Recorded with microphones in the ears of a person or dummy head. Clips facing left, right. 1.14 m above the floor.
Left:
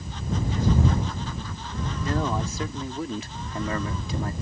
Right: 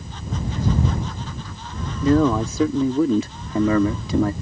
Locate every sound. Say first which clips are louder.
2.0 s a man speaking: right 11 dB; 80° right; by 4.3 s 65° right (ahead or behind)